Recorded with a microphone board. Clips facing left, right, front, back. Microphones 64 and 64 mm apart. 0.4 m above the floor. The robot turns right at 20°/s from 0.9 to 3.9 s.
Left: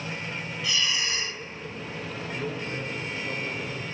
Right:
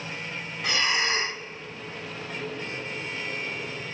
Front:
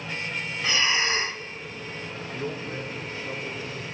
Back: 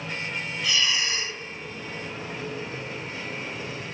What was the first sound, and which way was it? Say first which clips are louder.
Breathing: right 4 dB, front 3 dB; 50° right.